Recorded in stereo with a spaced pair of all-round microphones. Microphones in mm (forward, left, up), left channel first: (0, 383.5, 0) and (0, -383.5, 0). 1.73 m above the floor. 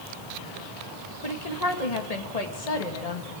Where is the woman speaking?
55° left (ahead or behind), 2 m.